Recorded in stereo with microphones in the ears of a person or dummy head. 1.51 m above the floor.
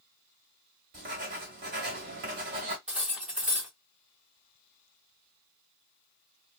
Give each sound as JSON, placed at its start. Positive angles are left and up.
{"t": 0.9, "sound": "writing", "side_deg": -40, "distance_m": 1.5}
{"t": 2.9, "sound": "cutlery clinking", "side_deg": 0, "distance_m": 1.0}